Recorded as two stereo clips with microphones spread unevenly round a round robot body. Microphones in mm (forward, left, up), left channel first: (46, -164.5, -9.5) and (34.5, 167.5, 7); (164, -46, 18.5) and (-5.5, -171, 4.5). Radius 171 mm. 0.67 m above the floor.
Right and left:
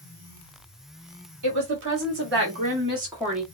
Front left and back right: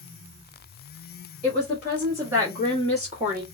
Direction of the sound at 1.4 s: 125° left.